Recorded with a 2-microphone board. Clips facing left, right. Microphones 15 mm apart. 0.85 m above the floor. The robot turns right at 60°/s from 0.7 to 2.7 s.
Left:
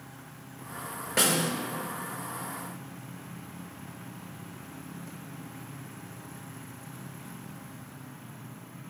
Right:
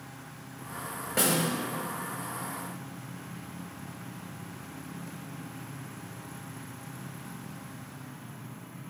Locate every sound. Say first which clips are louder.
1.2 s a snare drum: left 1 dB; 25° left (ahead or behind), 1.0 m; by 1.5 s 45° left (ahead or behind), 1.0 m